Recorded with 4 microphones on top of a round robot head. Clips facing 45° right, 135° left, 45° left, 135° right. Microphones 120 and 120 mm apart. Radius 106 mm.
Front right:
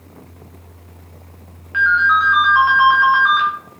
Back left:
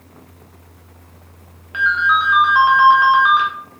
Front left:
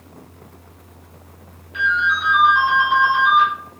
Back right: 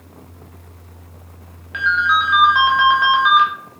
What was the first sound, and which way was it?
A ringtone, 160° right.